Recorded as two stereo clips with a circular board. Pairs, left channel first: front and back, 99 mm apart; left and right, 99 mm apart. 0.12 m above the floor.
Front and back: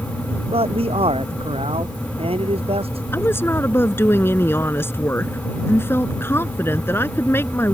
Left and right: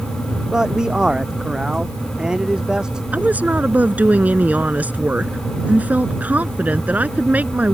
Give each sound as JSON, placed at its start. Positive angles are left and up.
{"t": 0.5, "sound": "a man speaking", "azimuth_deg": -175}
{"t": 3.1, "sound": "a woman speaking", "azimuth_deg": -35}